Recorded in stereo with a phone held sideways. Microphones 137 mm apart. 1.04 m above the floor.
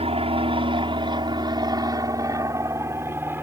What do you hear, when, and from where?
0.0 s an aircraft: 50° right (ahead or behind); by 3.4 s 15° right (ahead or behind)